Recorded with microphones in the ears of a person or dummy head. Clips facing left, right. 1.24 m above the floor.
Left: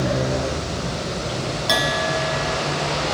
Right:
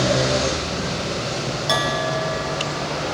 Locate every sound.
1.7 s a bell: 5° left (ahead or behind), 0.6 m